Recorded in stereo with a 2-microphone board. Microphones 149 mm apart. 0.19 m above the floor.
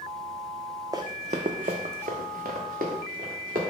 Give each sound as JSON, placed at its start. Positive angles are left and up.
{"t": 0.9, "sound": "running footsteps", "side_deg": -25, "distance_m": 0.5}